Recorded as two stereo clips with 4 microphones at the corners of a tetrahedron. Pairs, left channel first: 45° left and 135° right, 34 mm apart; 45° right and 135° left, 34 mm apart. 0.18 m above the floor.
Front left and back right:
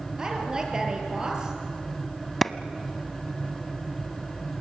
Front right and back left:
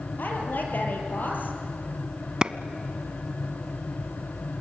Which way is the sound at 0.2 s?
70° right.